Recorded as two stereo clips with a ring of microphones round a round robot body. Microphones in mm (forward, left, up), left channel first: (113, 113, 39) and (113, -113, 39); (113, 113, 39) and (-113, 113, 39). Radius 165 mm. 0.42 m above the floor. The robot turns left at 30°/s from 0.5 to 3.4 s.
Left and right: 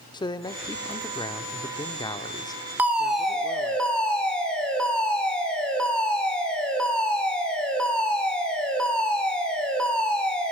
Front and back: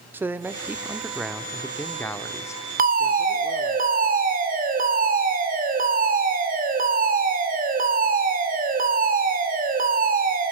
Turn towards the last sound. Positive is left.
turn(degrees=175)